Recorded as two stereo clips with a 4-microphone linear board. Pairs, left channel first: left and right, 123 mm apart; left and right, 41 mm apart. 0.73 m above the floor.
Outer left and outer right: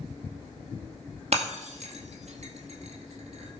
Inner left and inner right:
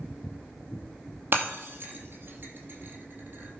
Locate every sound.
1.3 s breaking glass: 60° right (ahead or behind), 2 m